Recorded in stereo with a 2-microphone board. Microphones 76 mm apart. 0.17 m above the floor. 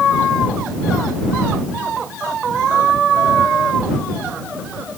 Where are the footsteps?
No footsteps in this recording.